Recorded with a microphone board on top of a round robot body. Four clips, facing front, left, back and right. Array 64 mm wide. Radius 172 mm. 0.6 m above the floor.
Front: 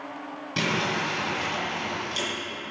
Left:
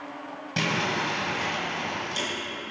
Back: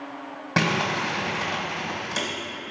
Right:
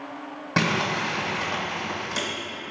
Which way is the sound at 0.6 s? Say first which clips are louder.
Right 3 dB, back 3 dB; 155° right.